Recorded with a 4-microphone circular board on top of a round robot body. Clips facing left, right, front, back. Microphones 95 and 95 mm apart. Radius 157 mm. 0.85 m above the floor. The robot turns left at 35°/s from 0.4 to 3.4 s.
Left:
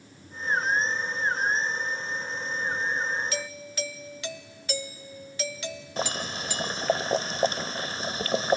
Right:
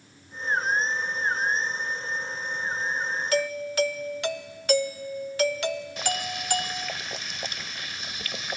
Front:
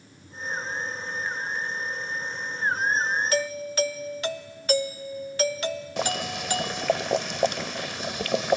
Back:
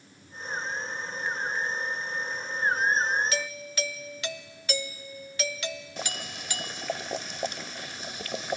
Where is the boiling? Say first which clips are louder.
Right 1 dB, front 9 dB; 30° left.